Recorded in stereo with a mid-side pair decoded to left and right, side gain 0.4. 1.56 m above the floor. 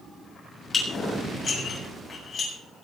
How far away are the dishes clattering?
About 7 m.